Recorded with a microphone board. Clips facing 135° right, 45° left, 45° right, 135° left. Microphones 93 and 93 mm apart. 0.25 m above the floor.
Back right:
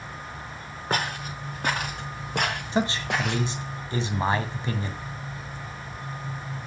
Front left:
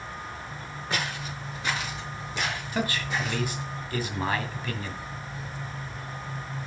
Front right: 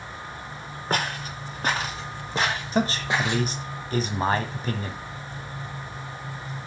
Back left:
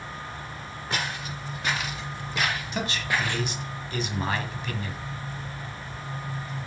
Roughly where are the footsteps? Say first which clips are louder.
Back right 4 dB, front right 5 dB; right.